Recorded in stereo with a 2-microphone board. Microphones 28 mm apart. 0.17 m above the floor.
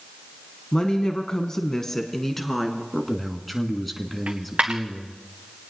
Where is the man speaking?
5° left (ahead or behind), 2.0 m.